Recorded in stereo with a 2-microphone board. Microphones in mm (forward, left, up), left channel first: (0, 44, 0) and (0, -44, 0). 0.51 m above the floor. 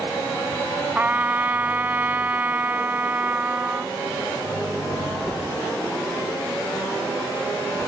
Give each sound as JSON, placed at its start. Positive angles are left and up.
{"t": 0.9, "sound": "a trumpet", "side_deg": -20}